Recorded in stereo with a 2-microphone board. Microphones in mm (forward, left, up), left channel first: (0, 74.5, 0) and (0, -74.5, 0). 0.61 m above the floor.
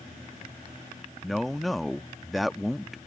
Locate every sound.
1.2 s a man speaking: centre (ahead or behind)